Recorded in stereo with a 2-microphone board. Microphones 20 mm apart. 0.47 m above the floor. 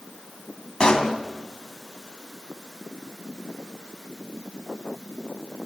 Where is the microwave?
No microwave in this recording.